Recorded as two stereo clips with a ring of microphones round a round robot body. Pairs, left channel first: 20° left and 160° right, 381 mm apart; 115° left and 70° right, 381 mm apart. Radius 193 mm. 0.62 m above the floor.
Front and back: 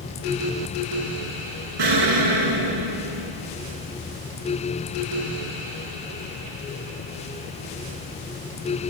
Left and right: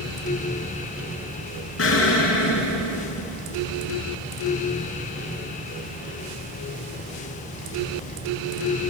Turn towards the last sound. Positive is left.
turn(degrees=170)